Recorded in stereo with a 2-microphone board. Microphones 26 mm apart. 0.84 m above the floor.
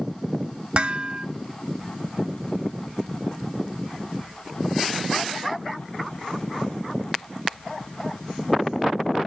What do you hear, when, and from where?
0.8 s dishes clattering: 40° right (ahead or behind), 0.6 m